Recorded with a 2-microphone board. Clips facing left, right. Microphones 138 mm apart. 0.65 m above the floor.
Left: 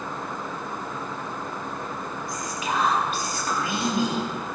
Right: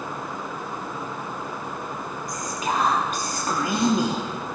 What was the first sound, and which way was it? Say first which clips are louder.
Whispering: right 2 dB; 40° right (ahead or behind).